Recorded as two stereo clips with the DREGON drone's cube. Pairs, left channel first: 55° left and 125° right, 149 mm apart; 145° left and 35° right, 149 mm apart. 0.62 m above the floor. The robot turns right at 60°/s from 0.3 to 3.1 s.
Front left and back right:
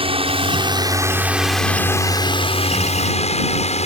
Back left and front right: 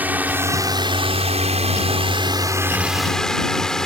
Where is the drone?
110° right; by 3.9 s 60° left.